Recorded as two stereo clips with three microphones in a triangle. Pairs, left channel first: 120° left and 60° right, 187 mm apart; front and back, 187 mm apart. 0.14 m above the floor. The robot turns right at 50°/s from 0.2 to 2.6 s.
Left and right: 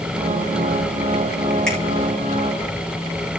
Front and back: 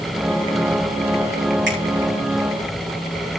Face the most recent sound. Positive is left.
turn(degrees=-110)